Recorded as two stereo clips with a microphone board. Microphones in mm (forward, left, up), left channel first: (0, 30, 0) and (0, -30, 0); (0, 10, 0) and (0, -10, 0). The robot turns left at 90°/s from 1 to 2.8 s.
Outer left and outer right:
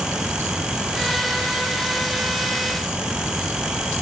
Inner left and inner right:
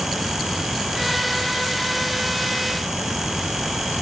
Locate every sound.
Only background noise.